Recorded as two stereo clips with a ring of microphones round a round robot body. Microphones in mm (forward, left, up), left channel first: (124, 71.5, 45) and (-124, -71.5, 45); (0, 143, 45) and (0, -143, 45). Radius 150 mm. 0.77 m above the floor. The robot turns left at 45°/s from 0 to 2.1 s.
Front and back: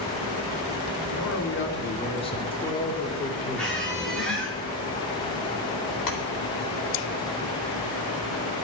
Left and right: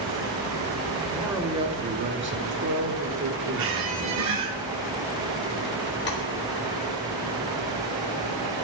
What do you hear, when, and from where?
1.1 s a man speaking: 5° left, 3 m; by 4.3 s 40° right, 3 m
3.5 s a squeak: 55° right, 5.5 m
6.1 s tapping: 35° left, 3.5 m